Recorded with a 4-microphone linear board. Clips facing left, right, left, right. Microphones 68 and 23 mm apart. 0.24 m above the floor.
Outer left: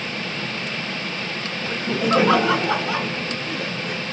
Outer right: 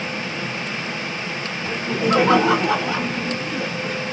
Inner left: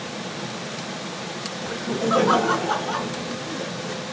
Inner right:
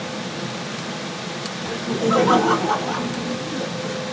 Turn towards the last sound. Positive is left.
turn(degrees=0)  # may be behind; listen again after turning